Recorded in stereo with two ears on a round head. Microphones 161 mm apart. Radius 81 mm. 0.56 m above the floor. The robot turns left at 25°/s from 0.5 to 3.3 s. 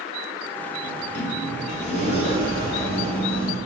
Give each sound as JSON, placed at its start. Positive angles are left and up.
{"t": 0.8, "sound": "a sliding door", "azimuth_deg": 70, "distance_m": 2.0}